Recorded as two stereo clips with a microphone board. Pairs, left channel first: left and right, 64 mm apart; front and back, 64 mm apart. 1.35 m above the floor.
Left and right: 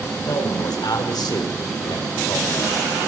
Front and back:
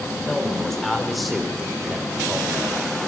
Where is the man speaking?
85° left, 6 m; by 2.8 s 120° left, 3.5 m.